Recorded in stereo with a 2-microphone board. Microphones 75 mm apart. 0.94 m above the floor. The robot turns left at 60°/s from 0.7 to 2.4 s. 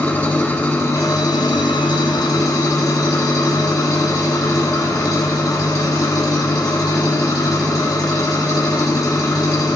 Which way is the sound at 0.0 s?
155° left.